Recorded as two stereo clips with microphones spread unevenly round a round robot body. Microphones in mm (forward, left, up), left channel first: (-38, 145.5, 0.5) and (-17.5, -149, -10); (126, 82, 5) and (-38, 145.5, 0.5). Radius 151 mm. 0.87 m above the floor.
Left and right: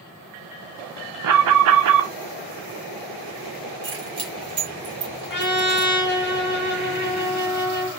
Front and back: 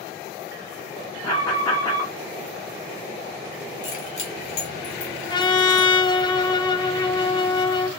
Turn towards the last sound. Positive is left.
turn(degrees=40)